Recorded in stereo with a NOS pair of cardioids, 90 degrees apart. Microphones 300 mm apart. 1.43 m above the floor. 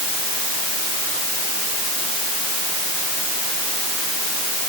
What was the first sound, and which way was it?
Only background noise.